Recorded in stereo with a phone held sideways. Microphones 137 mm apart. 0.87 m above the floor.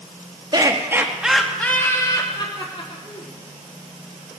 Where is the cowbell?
I don't hear a cowbell.